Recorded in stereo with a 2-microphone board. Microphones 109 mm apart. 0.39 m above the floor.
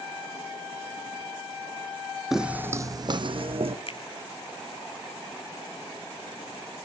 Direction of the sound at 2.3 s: Centre (ahead or behind).